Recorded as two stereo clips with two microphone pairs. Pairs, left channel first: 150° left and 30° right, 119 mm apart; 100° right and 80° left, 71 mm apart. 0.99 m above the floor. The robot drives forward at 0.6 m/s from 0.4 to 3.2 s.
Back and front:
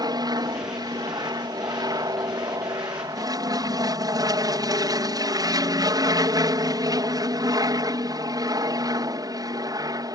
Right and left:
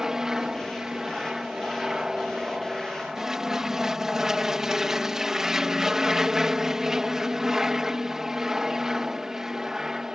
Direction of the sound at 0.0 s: Straight ahead.